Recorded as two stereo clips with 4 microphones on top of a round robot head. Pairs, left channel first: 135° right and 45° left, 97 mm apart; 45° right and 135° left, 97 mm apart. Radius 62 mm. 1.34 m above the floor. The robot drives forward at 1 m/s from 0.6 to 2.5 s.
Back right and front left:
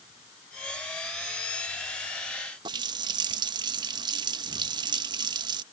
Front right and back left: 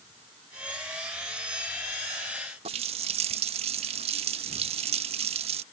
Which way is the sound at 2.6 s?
100° left.